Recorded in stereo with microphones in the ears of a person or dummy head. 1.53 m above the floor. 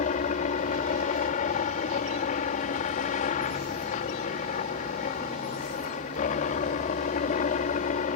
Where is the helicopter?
40° left (ahead or behind).